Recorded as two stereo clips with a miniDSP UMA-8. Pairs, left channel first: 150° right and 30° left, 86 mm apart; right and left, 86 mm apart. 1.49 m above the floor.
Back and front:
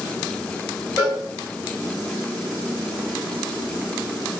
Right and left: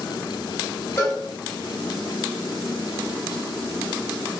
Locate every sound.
1.0 s a cowbell: 30° right, 2 m